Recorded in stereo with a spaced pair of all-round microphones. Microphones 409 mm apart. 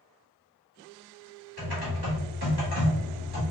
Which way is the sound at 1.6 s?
65° right (ahead or behind).